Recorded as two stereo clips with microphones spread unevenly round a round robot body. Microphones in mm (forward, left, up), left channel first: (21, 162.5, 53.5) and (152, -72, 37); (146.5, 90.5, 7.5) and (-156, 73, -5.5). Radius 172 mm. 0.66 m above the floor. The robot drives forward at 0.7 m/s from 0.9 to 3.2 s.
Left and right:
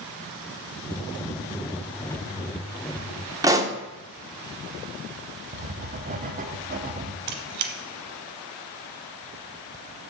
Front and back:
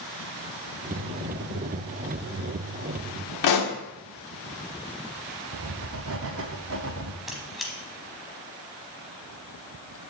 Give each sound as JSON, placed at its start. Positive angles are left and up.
{"t": 3.4, "sound": "a pop", "azimuth_deg": 15, "distance_m": 1.4}
{"t": 5.5, "sound": "writing", "azimuth_deg": -125, "distance_m": 0.7}
{"t": 7.3, "sound": "a squeak", "azimuth_deg": -85, "distance_m": 0.8}